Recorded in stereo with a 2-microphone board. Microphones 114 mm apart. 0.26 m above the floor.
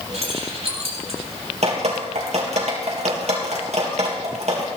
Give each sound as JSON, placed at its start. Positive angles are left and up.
{"t": 0.1, "sound": "keys jangling", "side_deg": -65, "distance_m": 4.5}
{"t": 1.6, "sound": "dripping", "side_deg": -70, "distance_m": 3.5}